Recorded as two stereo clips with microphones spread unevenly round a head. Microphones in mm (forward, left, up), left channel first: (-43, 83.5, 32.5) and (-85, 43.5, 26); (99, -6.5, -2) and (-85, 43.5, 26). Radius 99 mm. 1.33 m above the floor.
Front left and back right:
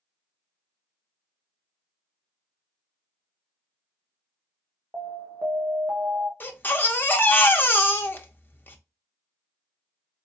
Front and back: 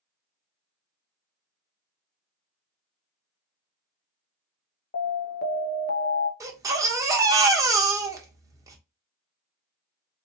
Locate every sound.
4.9 s an alarm: 60° right, 0.6 m
6.4 s a baby crying: 95° left, 0.8 m